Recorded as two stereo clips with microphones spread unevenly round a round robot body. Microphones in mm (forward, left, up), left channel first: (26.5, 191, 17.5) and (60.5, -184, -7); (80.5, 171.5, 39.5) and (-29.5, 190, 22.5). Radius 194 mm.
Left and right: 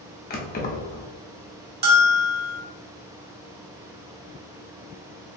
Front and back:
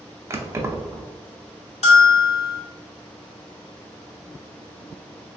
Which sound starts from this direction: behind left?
Keys jangling, at 0.3 s.